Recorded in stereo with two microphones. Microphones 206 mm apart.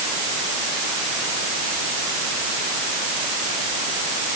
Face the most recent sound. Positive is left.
No sound to turn to.